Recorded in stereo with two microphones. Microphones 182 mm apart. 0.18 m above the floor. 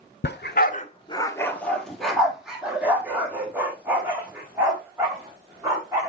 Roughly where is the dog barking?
Left.